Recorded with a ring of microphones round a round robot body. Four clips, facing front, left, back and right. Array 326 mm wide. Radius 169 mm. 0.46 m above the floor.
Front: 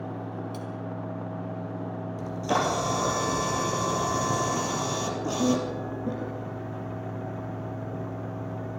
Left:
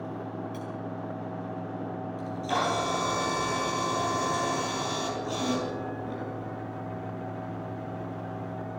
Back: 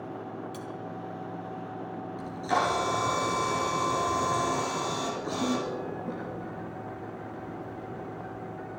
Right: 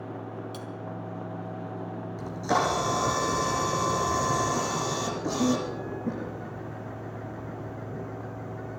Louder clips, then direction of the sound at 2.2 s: Right 3 dB, front 1 dB; 40° right.